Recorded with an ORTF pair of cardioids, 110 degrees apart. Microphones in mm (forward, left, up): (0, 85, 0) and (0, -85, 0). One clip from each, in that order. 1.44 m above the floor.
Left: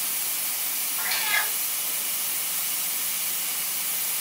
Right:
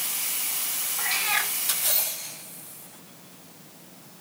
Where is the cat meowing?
10° left, 3.5 m.